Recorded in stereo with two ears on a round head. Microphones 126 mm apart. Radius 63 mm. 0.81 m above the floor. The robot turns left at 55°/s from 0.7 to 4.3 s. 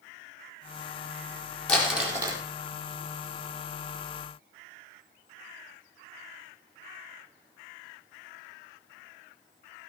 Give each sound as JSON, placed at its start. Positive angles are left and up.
{"t": 1.7, "sound": "crumpling", "azimuth_deg": 10, "distance_m": 4.5}